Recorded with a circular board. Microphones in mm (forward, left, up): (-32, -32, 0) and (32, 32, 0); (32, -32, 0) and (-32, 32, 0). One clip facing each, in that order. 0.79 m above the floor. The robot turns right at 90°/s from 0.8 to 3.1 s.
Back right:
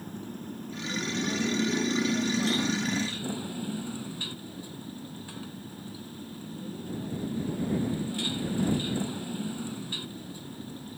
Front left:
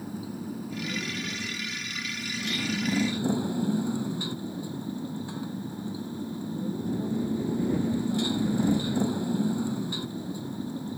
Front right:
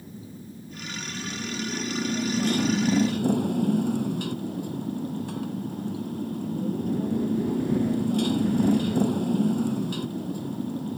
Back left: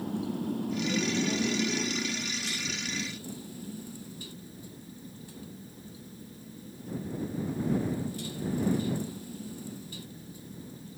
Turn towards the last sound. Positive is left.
turn(degrees=-25)